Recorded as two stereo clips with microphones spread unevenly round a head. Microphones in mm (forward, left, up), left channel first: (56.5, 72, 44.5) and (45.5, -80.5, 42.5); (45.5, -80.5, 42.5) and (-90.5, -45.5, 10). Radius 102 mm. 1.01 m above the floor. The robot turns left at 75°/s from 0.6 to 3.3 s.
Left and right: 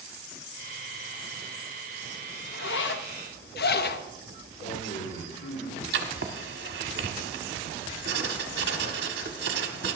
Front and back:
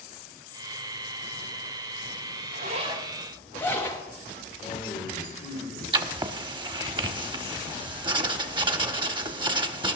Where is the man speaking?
55° left, 3 m.